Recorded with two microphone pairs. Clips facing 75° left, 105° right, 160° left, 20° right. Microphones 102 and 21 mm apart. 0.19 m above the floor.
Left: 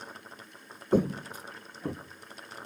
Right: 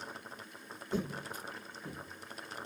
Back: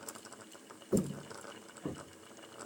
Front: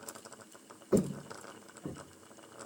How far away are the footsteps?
About 0.5 m.